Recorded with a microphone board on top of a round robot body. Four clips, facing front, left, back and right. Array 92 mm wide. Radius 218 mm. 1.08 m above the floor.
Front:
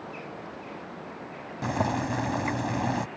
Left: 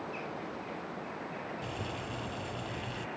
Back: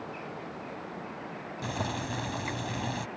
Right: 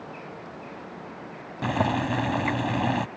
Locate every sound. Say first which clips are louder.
1.6 s boiling: right 14 dB, front 7 dB; 60° right